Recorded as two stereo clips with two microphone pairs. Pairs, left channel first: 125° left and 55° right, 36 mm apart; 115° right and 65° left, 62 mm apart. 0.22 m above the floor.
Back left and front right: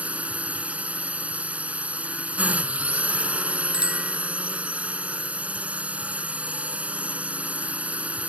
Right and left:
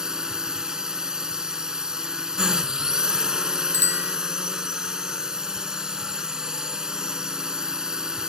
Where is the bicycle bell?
15° left.